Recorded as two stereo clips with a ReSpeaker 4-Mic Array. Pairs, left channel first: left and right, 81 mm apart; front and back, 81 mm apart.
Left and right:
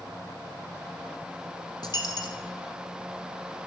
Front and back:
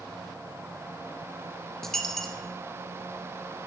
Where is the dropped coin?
85° left, 0.8 m.